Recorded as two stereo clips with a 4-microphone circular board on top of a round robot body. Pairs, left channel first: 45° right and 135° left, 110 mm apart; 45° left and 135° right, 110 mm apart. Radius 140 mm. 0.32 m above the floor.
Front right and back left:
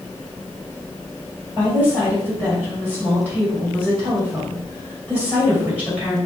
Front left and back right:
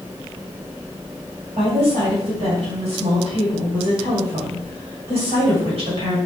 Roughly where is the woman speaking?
Behind right.